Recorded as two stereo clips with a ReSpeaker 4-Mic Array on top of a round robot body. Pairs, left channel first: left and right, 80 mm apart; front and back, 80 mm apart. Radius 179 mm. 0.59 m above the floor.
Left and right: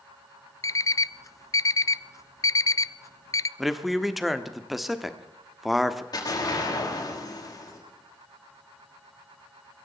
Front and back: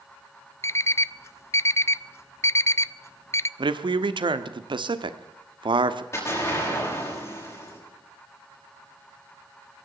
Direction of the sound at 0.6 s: 50° left.